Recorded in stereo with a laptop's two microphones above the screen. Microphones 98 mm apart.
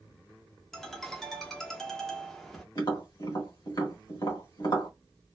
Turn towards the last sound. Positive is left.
turn(degrees=50)  # may be behind; listen again after turning